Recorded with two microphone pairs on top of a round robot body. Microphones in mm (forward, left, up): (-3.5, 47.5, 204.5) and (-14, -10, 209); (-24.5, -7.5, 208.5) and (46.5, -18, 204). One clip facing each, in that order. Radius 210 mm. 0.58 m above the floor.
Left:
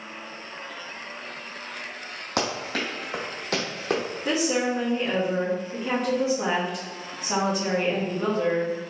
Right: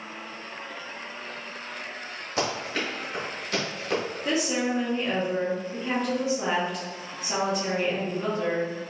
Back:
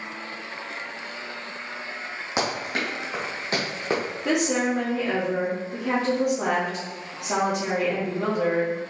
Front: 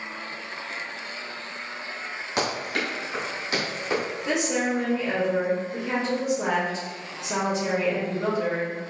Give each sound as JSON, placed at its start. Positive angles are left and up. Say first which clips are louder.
{"t": 2.4, "sound": "running footsteps", "louder": "left 1 dB, even", "azimuth_deg": 100, "distance_m": 1.7}
{"t": 4.2, "sound": "a woman speaking", "louder": "left 2 dB, back 3 dB", "azimuth_deg": 165, "distance_m": 1.7}